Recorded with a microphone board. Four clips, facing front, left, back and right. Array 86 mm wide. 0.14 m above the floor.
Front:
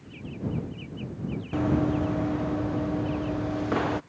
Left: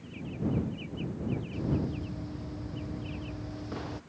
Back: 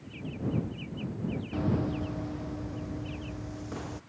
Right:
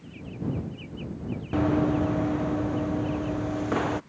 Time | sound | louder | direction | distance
1.5 | running footsteps | right 13 dB, front 7 dB | 70° right | ?